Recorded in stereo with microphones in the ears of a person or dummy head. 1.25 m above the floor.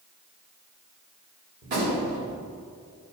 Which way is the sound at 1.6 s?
45° right (ahead or behind).